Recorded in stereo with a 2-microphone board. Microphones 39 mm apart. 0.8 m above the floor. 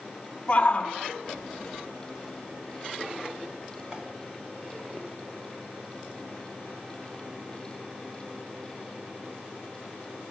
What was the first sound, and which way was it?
A shout, 25° left (ahead or behind).